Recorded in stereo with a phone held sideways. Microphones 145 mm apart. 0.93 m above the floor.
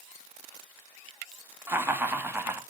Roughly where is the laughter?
Centre.